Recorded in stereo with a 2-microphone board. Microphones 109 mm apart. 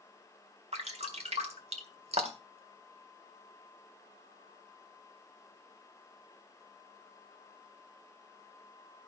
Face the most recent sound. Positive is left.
turn(degrees=-75)  # may be behind; listen again after turning